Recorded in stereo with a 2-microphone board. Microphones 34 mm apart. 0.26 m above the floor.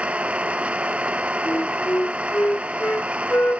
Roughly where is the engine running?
Right.